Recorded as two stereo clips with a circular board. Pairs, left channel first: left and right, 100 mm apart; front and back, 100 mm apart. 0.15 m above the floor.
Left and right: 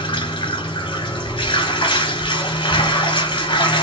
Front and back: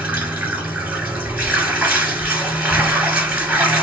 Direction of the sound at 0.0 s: 110° left.